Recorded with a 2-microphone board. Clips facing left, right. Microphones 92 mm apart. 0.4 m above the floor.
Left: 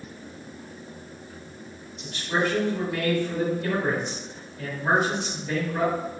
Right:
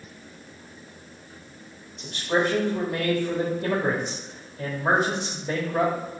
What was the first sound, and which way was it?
A man speaking, 40° right (ahead or behind).